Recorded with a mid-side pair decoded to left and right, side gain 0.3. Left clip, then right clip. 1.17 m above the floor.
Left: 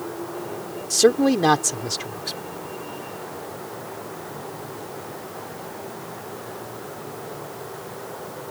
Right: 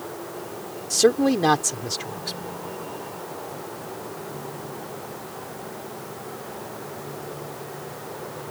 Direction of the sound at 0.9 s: 15° left.